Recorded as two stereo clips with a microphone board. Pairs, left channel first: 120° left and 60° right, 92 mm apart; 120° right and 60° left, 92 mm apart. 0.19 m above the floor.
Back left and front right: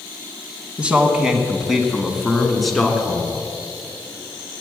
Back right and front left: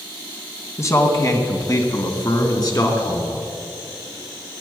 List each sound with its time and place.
0.8 s a man speaking: 125° right, 1.4 m; by 3.4 s 155° right, 2.5 m